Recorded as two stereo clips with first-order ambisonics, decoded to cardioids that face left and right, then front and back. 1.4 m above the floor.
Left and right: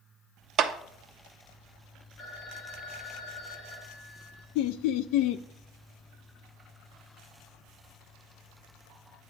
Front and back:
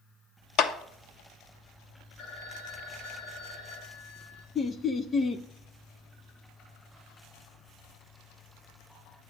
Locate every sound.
0.6 s a clap: 40° right, 0.7 m
2.2 s a phone ringing: straight ahead, 2.5 m
4.5 s laughter: 70° left, 0.6 m